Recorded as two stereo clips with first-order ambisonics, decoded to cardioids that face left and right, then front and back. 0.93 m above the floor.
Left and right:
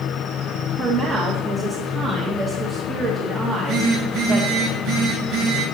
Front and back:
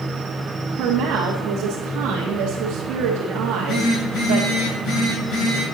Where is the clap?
No clap in this recording.